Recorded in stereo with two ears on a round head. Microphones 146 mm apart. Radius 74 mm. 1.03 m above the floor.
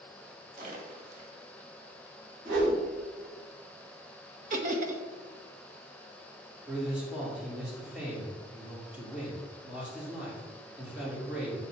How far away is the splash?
About 1.2 m.